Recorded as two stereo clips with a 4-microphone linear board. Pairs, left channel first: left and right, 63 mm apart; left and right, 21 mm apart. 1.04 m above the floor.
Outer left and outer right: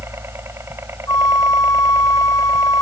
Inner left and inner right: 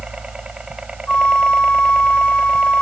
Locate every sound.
0.0 s a helicopter: 40° right (ahead or behind); by 2.8 s 45° right (ahead or behind)
1.1 s a flute: 65° left (ahead or behind)